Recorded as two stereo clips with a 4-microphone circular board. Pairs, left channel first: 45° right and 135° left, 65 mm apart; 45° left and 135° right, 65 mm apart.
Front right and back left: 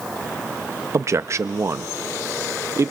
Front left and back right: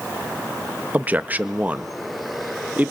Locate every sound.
0.9 s a man speaking: 165° left, 0.8 m